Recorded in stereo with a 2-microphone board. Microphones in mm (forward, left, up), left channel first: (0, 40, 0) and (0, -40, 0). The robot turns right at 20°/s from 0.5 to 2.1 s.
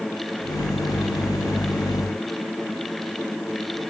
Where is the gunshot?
No gunshot in this recording.